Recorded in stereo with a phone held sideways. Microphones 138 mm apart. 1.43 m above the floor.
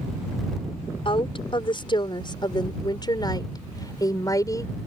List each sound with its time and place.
1.1 s a woman speaking: 40° left (ahead or behind); by 4.7 s 25° left (ahead or behind)